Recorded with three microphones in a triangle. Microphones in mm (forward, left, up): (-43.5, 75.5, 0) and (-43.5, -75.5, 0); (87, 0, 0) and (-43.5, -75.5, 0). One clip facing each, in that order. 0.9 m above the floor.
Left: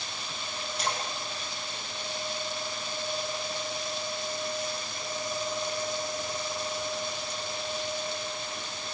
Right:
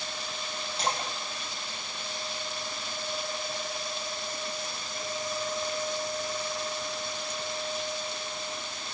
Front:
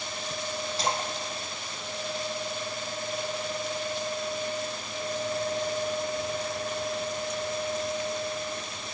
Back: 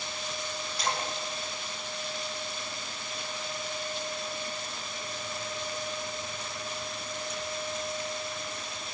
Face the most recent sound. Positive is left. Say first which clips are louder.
# right 2 dB, front 1 dB
turn(degrees=-30)